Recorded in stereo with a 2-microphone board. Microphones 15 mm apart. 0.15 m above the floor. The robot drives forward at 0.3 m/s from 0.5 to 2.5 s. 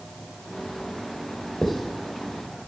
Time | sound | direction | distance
1.6 | writing | 60° left (ahead or behind) | 3 m